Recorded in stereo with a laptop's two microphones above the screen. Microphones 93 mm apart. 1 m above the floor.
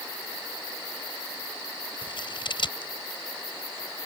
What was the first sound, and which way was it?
Scissors, 60° left (ahead or behind).